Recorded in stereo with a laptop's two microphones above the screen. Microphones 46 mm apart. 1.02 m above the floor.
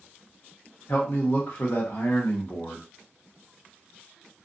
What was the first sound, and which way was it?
A man speaking, 55° left (ahead or behind).